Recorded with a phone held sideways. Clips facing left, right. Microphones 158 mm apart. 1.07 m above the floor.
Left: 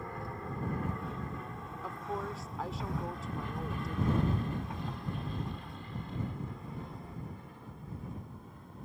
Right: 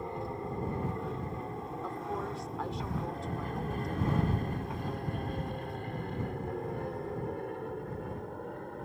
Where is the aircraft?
20° right (ahead or behind); by 8.8 s 70° right (ahead or behind).